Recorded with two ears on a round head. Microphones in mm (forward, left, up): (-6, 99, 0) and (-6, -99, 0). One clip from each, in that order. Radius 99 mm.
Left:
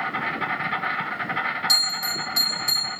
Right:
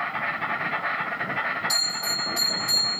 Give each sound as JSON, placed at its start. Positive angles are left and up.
{"t": 0.0, "sound": "an insect", "side_deg": 20, "distance_m": 3.0}
{"t": 1.7, "sound": "a bell", "side_deg": 35, "distance_m": 3.5}